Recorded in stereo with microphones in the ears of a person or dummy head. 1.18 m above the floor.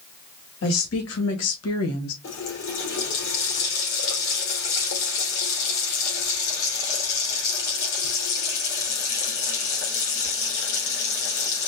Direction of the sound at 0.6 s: 75° left (ahead or behind).